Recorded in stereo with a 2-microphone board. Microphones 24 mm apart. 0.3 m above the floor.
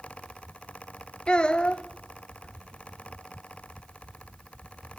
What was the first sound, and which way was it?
A child speaking, 40° left (ahead or behind).